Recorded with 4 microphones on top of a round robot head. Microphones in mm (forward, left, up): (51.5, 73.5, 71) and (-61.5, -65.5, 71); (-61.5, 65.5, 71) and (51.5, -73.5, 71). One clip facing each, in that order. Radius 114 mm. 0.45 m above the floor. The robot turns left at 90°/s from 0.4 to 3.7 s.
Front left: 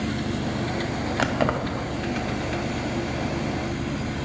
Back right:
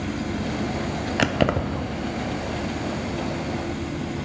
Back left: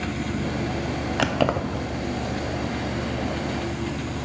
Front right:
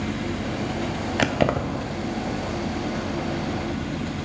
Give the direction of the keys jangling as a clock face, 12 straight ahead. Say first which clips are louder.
Back right 3 dB, front right 1 dB; 3 o'clock.